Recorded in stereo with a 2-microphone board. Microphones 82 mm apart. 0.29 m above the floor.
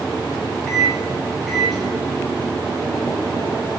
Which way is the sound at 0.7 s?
Centre (ahead or behind).